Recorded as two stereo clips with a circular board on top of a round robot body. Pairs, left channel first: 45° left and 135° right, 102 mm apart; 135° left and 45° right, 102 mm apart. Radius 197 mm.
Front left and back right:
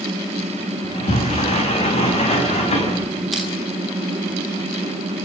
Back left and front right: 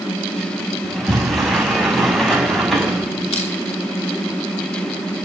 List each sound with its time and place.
0.8 s a sliding door: 45° left, 6 m
3.3 s crushing: 135° left, 5.5 m